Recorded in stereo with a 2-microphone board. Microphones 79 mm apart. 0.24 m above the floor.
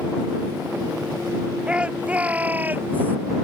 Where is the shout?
10° right (ahead or behind); by 3.2 s 25° right (ahead or behind).